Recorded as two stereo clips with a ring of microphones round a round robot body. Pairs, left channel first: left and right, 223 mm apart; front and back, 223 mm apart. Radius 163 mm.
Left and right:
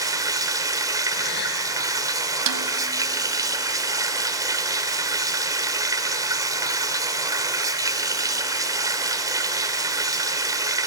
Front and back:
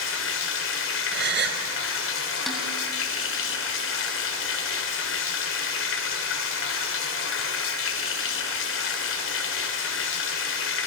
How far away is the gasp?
About 2.5 m.